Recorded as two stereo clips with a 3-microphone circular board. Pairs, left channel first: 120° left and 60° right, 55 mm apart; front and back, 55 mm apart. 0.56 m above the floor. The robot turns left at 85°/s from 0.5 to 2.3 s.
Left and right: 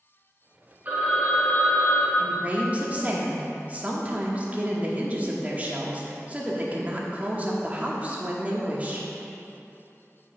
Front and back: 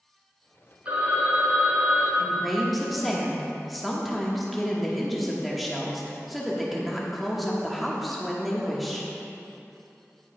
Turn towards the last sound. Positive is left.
turn(degrees=-85)